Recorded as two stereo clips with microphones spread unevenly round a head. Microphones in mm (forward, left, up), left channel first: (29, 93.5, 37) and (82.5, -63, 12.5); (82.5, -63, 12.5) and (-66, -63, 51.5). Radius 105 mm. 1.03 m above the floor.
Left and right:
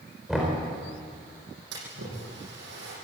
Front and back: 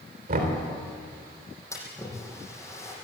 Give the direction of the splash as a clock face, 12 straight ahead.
2 o'clock.